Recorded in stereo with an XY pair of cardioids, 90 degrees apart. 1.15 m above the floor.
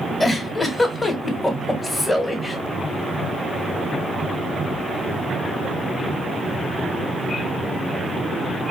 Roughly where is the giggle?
Ahead left.